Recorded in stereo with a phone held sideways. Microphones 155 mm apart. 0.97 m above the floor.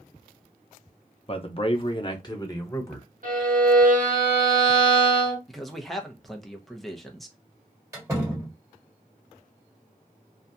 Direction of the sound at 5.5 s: Centre (ahead or behind).